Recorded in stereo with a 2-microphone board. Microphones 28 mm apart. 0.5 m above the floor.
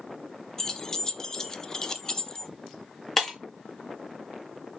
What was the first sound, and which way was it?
Keys jangling, 25° left (ahead or behind).